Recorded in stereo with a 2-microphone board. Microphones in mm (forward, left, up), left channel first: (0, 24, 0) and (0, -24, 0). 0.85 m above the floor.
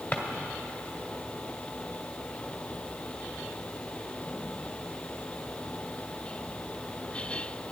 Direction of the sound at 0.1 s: 40° left (ahead or behind).